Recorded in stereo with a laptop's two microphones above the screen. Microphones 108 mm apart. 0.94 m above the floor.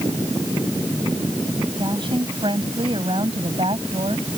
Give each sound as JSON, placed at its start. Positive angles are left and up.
{"t": 1.8, "sound": "a woman speaking", "side_deg": -50}